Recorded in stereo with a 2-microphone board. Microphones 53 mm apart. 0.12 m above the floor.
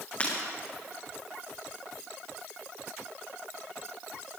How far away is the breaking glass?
About 5 m.